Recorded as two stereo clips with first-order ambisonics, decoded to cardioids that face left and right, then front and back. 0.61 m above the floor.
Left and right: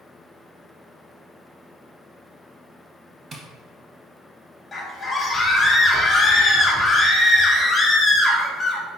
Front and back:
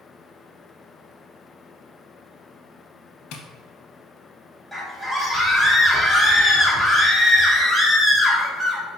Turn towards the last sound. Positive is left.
turn(degrees=80)